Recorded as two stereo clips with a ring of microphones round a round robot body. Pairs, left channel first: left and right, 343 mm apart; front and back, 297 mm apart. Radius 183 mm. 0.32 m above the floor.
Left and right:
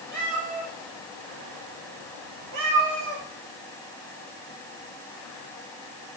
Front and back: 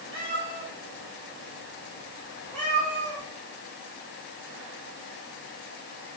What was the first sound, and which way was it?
A cat meowing, 45° right.